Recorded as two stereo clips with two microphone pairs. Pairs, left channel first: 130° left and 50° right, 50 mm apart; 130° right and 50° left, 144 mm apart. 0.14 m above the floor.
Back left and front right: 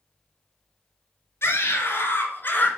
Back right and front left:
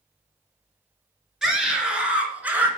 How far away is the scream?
About 2.5 m.